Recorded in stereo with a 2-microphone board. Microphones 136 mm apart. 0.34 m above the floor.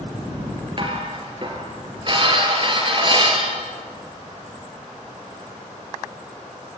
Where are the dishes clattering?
40° right (ahead or behind), 3.5 m.